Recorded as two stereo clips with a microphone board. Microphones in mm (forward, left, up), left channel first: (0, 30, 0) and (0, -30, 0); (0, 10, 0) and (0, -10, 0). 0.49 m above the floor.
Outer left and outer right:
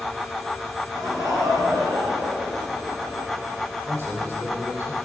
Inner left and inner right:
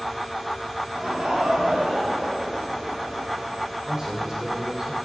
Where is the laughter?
65° right (ahead or behind), 6 m; by 3.4 s 75° right (ahead or behind), 4.5 m.